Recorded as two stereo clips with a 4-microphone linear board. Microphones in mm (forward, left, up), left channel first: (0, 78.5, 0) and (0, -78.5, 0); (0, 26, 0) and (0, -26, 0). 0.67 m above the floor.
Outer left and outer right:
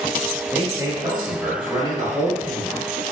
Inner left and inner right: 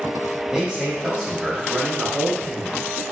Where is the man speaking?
10° right (ahead or behind), 0.7 m; by 2.8 s 30° right (ahead or behind), 3 m.